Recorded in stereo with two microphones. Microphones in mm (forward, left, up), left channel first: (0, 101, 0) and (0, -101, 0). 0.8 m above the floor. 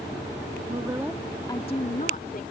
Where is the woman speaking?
30° right (ahead or behind); by 2.4 s 45° left (ahead or behind).